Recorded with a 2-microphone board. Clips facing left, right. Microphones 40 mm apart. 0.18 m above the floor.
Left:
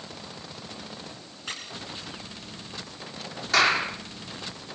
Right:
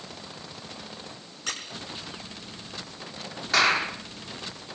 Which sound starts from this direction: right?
A squeak, at 1.5 s.